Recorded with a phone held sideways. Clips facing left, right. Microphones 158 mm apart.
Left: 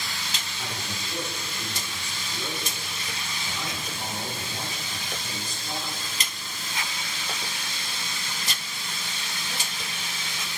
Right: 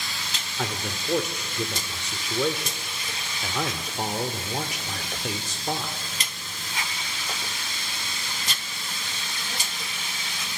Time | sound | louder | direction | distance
0.6 | a man speaking | right 7 dB | 75° right (ahead or behind) | 3.5 m